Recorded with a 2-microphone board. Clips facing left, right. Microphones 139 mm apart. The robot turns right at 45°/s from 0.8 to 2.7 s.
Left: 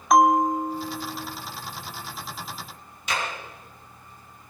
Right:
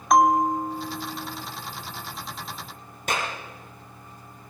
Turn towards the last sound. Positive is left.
turn(degrees=-50)  # may be behind; listen again after turning